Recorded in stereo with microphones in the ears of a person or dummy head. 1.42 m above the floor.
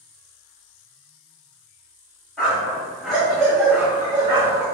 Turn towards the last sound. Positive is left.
turn(degrees=-15)  # may be behind; listen again after turning